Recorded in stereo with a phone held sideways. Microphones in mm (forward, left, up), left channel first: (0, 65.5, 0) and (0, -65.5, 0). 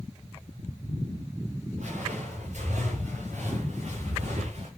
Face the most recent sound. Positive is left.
turn(degrees=-60)  # may be behind; listen again after turning